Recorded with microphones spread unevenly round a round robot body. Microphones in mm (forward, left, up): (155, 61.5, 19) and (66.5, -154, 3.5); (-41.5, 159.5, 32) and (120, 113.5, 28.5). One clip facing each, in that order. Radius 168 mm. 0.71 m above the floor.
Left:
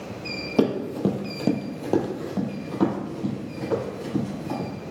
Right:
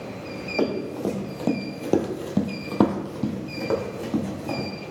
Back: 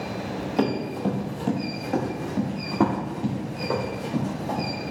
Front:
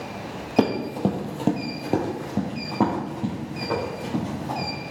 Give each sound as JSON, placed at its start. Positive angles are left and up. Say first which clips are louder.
{"t": 0.6, "sound": "running footsteps", "louder": "left 3 dB, front 4 dB", "azimuth_deg": 30, "distance_m": 1.2}